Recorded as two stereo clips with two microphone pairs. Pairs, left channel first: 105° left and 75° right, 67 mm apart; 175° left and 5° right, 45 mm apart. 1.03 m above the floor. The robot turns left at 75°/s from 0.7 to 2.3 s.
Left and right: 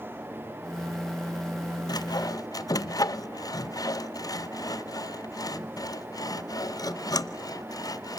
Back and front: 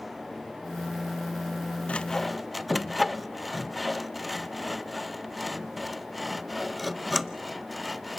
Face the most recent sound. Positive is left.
turn(degrees=85)